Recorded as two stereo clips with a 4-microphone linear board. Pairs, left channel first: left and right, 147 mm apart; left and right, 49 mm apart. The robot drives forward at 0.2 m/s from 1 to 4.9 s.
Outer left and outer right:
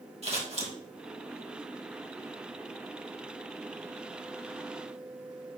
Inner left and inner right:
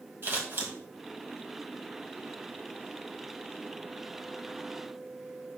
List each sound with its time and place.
0.2 s scissors: 50° right (ahead or behind), 2 m